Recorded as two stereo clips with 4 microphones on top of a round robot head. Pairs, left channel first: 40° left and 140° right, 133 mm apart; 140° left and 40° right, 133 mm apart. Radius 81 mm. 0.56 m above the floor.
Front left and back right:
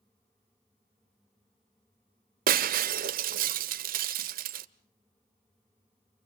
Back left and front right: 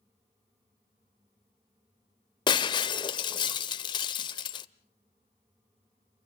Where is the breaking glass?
160° right, 0.8 m.